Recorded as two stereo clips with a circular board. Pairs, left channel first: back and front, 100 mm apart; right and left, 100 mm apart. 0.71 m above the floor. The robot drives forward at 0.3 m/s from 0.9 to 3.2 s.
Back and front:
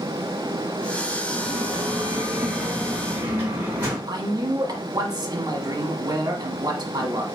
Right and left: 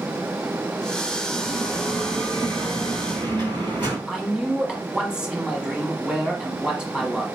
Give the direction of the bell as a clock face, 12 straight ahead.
10 o'clock.